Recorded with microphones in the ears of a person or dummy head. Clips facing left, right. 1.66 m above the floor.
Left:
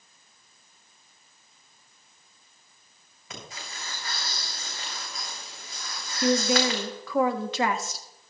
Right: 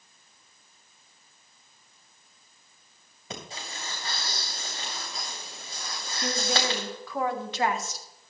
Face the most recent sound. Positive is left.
turn(degrees=65)  # may be behind; listen again after turning